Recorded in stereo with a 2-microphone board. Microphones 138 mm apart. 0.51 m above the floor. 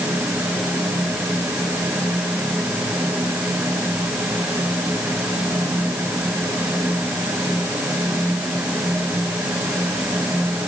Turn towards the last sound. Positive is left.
No sound to turn to.